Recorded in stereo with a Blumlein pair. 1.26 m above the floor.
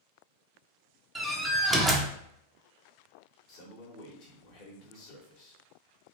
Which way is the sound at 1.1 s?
10° right.